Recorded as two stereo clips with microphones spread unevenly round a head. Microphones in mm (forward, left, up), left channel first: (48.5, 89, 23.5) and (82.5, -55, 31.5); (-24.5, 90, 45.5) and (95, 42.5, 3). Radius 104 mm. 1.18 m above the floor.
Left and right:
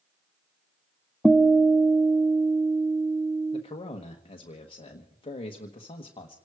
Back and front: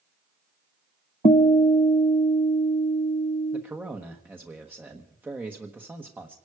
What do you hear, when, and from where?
1.2 s a guitar: 160° right, 0.6 m
3.5 s a man speaking: 50° left, 1.3 m